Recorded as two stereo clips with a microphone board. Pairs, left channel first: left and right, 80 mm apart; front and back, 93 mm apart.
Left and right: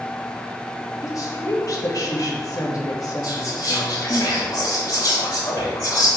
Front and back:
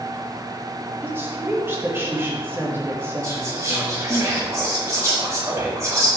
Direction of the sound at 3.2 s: 120° left.